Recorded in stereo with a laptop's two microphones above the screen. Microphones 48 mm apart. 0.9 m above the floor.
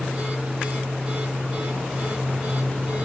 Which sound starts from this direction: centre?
A machine running, at 0.0 s.